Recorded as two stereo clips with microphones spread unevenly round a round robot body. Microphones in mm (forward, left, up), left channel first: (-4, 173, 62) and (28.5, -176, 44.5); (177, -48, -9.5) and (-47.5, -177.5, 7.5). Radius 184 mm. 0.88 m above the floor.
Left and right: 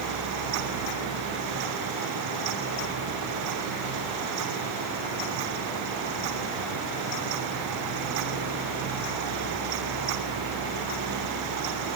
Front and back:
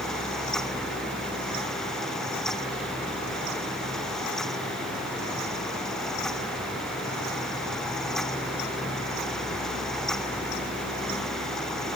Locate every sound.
Only background noise.